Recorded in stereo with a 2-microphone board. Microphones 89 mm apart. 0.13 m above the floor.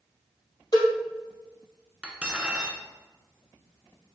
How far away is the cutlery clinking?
About 0.7 m.